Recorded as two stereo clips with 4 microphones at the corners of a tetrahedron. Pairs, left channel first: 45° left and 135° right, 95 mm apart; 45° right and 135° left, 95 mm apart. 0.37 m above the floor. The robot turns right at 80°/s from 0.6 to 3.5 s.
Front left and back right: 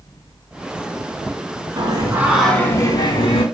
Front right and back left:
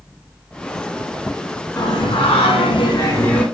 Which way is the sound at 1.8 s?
100° right.